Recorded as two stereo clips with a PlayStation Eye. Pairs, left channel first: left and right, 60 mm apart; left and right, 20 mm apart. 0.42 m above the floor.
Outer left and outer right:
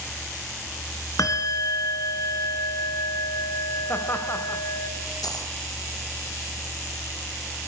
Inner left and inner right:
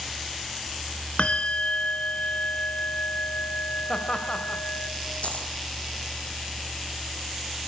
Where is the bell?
65° left (ahead or behind), 1.9 m.